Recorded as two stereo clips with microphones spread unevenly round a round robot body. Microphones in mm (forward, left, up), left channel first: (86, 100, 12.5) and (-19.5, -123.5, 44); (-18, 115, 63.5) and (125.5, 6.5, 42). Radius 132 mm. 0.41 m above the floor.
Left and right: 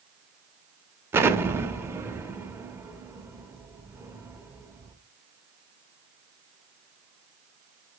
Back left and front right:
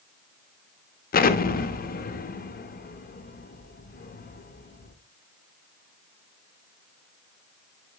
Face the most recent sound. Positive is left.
turn(degrees=160)